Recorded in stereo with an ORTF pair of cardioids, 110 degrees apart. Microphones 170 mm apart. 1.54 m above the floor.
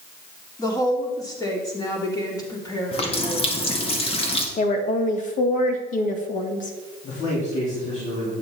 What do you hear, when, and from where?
0.6 s a woman speaking: 20° left, 3 m
2.9 s a running tap: 35° left, 1.9 m
4.6 s a woman speaking: 50° left, 1.6 m
7.0 s a man speaking: 45° left, 4.5 m